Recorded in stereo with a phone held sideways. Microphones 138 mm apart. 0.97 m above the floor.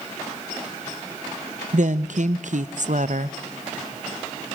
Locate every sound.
1.7 s a woman speaking: 65° right (ahead or behind), 0.6 m